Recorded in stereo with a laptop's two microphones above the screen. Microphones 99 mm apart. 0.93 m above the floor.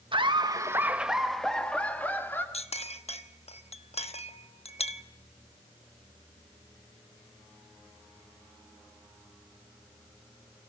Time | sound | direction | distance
0.1 | laughter | 55° right (ahead or behind) | 1.2 m
2.5 | a clink | 80° left | 1.0 m